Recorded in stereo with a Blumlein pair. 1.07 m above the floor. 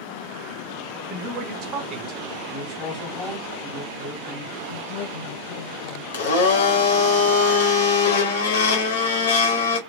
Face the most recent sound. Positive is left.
turn(degrees=60)